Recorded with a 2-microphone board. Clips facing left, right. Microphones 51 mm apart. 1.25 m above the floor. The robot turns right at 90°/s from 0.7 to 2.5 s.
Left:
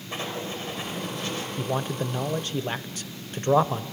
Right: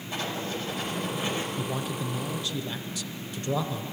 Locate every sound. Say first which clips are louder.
0.1 s writing: even; 145° left, 5 m; by 1.5 s 145° right, 5 m
1.6 s a man speaking: left 3 dB; 30° left, 0.8 m; by 3.8 s 115° left, 0.8 m